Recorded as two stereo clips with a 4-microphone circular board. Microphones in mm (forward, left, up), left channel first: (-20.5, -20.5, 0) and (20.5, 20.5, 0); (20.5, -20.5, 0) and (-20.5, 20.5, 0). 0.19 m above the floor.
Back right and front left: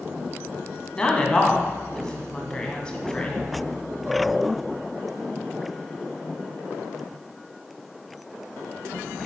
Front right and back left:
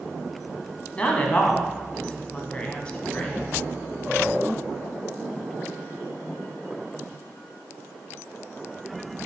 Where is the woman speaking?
85° right, 1.1 m.